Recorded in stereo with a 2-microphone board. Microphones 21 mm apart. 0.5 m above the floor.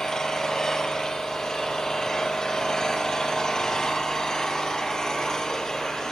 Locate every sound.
0.0 s an engine running: 30° left (ahead or behind), 4 m